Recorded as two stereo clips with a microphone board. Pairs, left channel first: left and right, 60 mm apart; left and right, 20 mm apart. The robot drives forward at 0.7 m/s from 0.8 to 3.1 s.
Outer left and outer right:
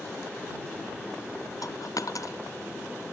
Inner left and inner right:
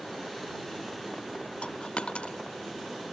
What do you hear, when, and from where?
1.6 s a dropped coin: 70° left (ahead or behind); by 2.4 s 65° left (ahead or behind)